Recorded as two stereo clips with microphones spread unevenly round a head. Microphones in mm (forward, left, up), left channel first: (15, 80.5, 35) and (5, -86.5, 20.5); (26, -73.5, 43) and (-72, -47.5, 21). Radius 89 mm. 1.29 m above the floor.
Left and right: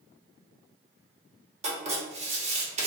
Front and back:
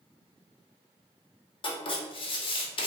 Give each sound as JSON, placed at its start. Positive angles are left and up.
{"t": 1.6, "sound": "writing", "azimuth_deg": -50, "distance_m": 1.2}